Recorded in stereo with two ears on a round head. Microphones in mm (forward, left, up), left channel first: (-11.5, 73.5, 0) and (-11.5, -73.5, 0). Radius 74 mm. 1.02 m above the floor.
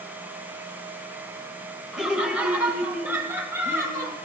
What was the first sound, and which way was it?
Laughter, 5° right (ahead or behind).